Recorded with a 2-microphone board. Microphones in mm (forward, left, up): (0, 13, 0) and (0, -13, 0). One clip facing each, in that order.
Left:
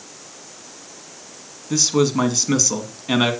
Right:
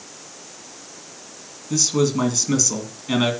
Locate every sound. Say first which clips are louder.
1.7 s a man speaking: left 2 dB; 20° left (ahead or behind), 2.5 m